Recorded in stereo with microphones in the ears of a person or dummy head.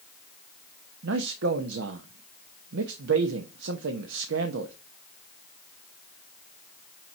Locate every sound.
1.0 s a man speaking: 60° right (ahead or behind), 0.8 m